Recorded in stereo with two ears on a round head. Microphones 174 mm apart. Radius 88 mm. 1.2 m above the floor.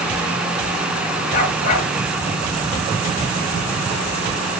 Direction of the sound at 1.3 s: 50° left (ahead or behind).